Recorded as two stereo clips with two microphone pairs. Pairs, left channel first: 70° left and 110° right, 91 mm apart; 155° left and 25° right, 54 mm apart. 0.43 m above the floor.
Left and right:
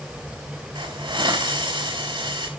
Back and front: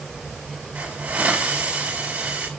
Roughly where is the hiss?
Right.